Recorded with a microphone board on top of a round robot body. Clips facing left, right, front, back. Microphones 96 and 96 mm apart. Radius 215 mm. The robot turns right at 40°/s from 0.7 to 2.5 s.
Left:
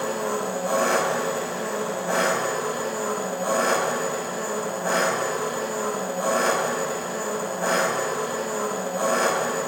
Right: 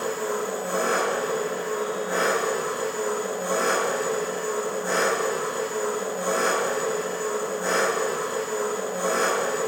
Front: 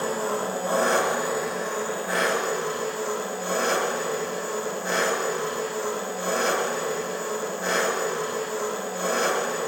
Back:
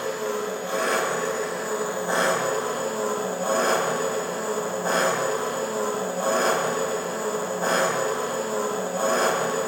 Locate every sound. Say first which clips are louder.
0.0 s an engine running: left 1 dB, front 1 dB; 55° left, 1.5 m; by 9.7 s 130° left, 1.5 m